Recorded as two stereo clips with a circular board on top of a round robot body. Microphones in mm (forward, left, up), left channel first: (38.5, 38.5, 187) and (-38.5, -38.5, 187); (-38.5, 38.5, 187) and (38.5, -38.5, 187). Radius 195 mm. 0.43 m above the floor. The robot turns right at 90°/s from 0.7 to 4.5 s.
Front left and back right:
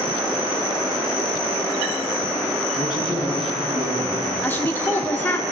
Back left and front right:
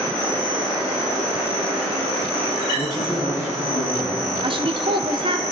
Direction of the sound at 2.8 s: 75° left.